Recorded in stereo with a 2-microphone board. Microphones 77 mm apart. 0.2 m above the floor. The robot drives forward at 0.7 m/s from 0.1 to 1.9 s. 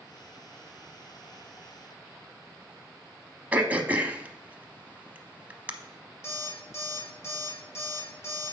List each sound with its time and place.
3.5 s throat clearing: 20° right (ahead or behind), 0.7 m
6.2 s an alarm clock: 35° left (ahead or behind), 3 m